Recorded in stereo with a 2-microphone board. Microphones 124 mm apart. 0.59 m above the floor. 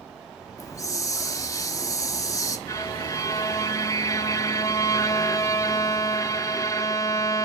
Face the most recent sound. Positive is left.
turn(degrees=25)  # may be behind; listen again after turning